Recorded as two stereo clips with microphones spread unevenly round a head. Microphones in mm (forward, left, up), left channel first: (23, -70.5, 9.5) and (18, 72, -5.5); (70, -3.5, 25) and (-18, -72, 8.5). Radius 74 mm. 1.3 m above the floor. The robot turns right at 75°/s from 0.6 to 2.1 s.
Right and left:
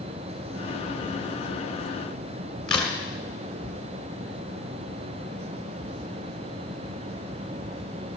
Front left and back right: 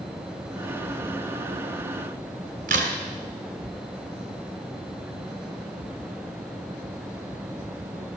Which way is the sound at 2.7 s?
170° right.